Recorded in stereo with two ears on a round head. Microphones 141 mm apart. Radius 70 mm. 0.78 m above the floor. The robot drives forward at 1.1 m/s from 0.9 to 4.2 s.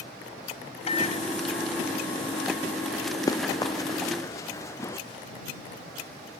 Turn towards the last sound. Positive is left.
turn(degrees=15)  # may be behind; listen again after turning